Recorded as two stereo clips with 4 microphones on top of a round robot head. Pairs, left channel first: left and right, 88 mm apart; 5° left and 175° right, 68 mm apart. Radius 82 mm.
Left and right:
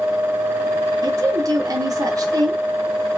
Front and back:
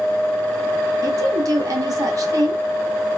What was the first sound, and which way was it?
A woman speaking, 140° right.